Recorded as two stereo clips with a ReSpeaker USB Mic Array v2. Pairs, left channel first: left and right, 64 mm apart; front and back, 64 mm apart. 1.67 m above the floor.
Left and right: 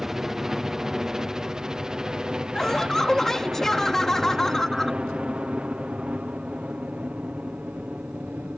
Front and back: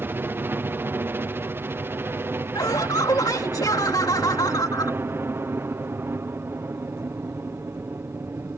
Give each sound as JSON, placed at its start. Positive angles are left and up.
{"t": 0.0, "sound": "a helicopter", "azimuth_deg": -170}
{"t": 2.5, "sound": "laughter", "azimuth_deg": 5}